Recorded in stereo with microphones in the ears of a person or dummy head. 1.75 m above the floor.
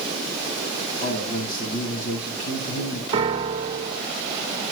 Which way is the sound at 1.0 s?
40° left (ahead or behind).